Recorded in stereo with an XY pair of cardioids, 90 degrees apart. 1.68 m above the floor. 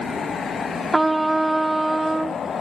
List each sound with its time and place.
0.9 s a trumpet: 15° right